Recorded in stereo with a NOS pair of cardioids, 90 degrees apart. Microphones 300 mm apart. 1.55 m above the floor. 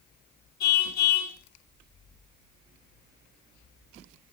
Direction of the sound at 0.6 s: 65° left.